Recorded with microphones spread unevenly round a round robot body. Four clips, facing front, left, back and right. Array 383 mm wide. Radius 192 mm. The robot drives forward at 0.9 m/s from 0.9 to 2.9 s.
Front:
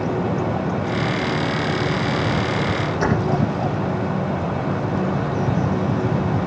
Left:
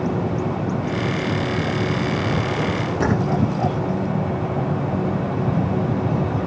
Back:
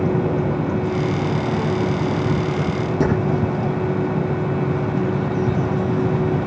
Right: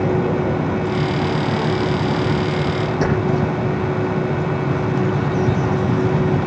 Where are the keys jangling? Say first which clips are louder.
Even, back 2 dB; 170° left, 9 m.